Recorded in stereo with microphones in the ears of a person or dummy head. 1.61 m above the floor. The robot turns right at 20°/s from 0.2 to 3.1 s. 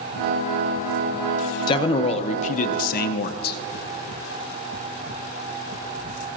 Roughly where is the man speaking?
Left.